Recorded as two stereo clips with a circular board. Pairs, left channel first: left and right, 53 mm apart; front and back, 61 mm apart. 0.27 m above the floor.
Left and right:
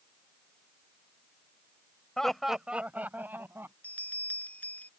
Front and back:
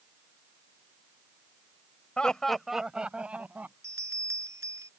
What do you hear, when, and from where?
2.2 s laughter: 35° left; by 3.7 s 120° right
3.8 s a bell: 150° left